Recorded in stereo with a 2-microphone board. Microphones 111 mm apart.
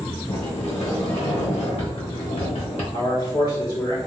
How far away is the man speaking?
About 1.0 m.